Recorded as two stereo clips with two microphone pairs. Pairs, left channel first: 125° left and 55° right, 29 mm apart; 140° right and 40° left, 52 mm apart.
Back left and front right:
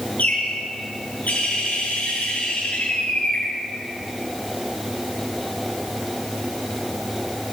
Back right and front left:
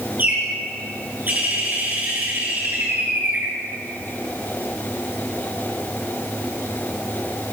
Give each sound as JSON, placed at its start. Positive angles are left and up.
{"t": 0.2, "sound": "a bird", "azimuth_deg": 95, "distance_m": 7.5}